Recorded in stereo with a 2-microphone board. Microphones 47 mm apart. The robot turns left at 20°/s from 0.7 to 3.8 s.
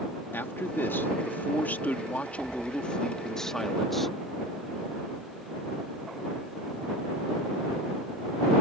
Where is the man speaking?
70° left; by 4.2 s 5° left.